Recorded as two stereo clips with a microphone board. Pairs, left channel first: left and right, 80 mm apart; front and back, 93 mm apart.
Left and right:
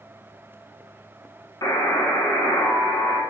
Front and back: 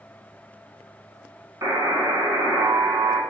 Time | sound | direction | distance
1.6 | a buzzer | 130° left | 0.6 m